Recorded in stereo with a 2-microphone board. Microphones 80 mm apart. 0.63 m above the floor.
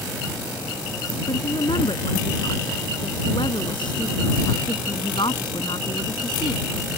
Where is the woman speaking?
85° left; by 6.7 s 70° left (ahead or behind).